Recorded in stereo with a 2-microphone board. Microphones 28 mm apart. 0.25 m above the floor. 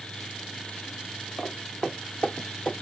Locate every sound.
1.4 s footsteps: 70° left (ahead or behind), 0.8 m; by 2.7 s 50° left (ahead or behind), 1.4 m